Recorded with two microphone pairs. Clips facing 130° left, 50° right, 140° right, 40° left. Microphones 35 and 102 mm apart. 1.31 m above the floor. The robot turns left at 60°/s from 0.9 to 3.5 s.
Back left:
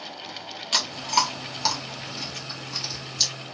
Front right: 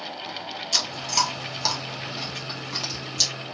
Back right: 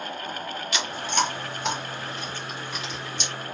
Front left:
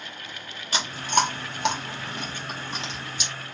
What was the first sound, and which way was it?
Chewing, 95° left.